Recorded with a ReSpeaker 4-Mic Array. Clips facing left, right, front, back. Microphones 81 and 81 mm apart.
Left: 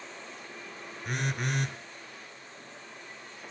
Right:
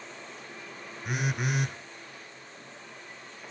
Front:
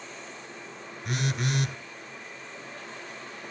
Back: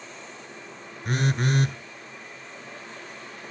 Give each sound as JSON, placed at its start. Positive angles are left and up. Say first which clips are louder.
{"t": 1.1, "sound": "a phone buzzing", "louder": "right 2 dB, back 5 dB", "azimuth_deg": -170, "distance_m": 1.1}